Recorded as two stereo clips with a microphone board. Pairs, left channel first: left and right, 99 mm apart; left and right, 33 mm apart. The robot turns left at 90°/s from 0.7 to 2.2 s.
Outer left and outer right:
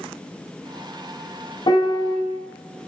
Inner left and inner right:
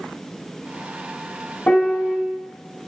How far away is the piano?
About 1.2 m.